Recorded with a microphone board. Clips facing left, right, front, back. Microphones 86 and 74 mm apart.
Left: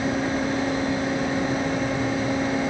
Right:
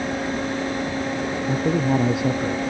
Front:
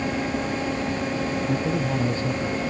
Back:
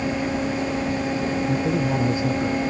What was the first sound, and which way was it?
A man speaking, 100° right.